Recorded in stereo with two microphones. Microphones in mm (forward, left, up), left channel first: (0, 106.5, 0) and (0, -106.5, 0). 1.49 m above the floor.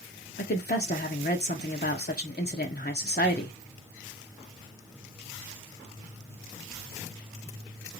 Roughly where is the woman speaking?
Left.